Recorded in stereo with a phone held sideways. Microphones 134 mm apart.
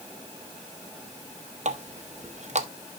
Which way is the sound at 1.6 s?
55° right (ahead or behind).